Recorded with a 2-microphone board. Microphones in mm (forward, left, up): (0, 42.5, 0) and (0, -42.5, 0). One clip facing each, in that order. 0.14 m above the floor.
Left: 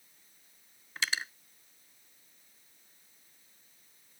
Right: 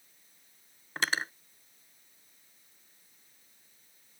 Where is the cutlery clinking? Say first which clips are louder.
Right 4 dB; 45° right (ahead or behind).